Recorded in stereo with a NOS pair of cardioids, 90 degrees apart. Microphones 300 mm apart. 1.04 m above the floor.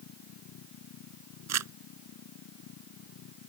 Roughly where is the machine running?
Ahead left.